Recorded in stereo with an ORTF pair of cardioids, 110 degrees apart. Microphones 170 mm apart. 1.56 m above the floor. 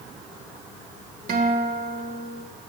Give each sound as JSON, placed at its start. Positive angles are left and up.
{"t": 1.3, "sound": "a guitar", "azimuth_deg": -55, "distance_m": 1.9}